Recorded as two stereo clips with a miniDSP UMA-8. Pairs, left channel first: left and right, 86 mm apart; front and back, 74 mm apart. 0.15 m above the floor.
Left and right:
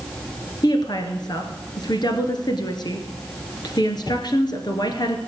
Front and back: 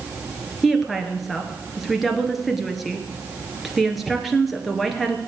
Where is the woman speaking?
90° left, 2.0 m.